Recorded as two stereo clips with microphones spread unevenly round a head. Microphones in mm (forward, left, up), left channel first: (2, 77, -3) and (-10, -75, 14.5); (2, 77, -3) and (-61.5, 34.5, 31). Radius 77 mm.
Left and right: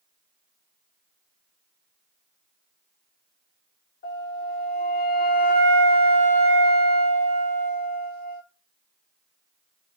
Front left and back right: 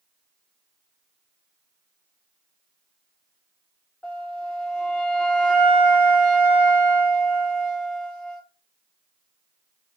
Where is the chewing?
I don't hear chewing.